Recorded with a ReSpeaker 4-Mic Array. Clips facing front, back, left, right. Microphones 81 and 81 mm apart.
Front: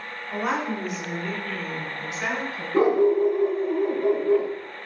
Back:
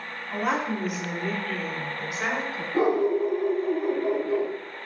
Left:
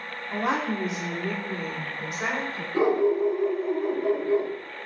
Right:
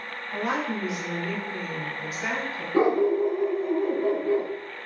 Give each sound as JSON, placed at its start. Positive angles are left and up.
{"t": 0.3, "sound": "a woman speaking", "azimuth_deg": 85, "distance_m": 2.5}
{"t": 2.7, "sound": "a dog barking", "azimuth_deg": -30, "distance_m": 3.0}